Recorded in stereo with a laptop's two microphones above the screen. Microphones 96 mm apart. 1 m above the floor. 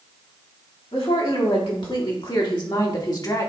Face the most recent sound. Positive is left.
turn(degrees=40)  # may be behind; listen again after turning